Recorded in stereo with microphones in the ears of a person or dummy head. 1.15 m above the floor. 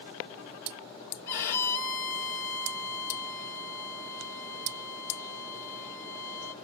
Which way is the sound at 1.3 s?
50° left (ahead or behind).